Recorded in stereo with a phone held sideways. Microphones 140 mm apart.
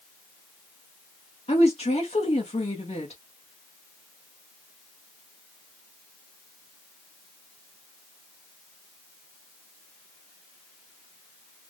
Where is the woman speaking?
50° left (ahead or behind), 2 m.